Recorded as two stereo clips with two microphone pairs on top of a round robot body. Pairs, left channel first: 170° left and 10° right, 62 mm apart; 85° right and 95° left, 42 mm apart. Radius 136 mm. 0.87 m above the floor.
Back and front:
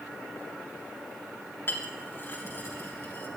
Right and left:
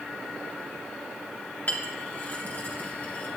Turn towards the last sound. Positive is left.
turn(degrees=-135)